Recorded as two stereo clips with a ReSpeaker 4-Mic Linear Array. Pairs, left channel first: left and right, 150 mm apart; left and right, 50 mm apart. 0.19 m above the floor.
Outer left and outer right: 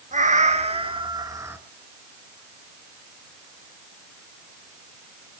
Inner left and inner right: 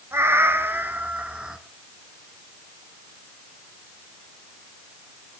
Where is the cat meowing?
55° right (ahead or behind), 1.2 m; by 1.6 s 15° right (ahead or behind), 1.0 m.